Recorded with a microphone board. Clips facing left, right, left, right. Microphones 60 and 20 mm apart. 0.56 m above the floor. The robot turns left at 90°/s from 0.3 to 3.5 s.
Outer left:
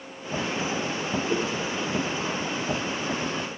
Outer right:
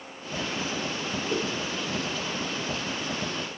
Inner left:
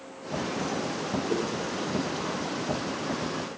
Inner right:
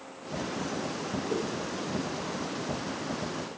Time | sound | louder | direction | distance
1.3 | a whoosh | outer left 1 dB, inner left 2 dB | 25° left (ahead or behind) | 4 m